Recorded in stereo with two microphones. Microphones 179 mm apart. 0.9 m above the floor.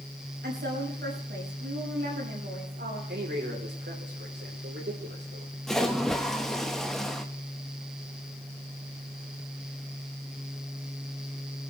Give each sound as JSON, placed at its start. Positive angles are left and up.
{"t": 0.4, "sound": "a woman speaking", "side_deg": -70, "distance_m": 5.5}
{"t": 3.1, "sound": "a man speaking", "side_deg": -75, "distance_m": 3.5}
{"t": 5.7, "sound": "a splash", "side_deg": 0, "distance_m": 1.4}